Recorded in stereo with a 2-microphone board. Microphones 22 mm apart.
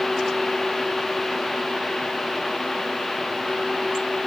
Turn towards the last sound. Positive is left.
No sound to turn to.